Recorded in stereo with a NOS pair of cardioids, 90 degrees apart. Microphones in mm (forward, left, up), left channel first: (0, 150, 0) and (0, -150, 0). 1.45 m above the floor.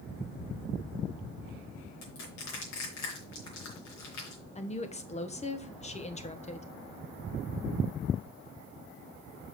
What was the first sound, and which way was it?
Crushing, 70° left.